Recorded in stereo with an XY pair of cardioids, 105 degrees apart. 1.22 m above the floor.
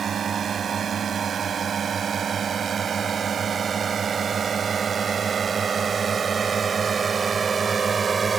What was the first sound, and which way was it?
A drone, 45° right.